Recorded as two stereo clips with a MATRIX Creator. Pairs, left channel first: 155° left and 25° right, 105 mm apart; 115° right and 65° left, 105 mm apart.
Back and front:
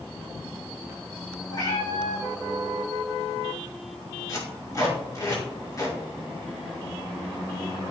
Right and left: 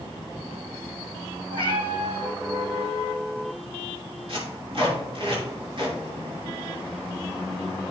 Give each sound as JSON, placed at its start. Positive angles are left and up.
{"t": 1.5, "sound": "a cat meowing", "azimuth_deg": 105, "distance_m": 2.5}
{"t": 4.3, "sound": "tape being pulled", "azimuth_deg": 95, "distance_m": 4.5}